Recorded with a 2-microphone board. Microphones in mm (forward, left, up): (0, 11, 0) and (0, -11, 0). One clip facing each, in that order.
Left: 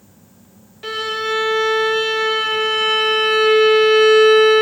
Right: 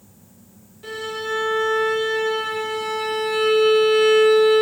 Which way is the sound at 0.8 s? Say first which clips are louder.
Left 6 dB; 40° left (ahead or behind).